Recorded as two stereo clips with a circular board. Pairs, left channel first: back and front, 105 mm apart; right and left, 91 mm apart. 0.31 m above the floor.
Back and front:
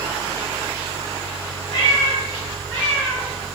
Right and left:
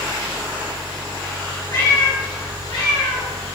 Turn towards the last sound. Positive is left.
turn(degrees=-100)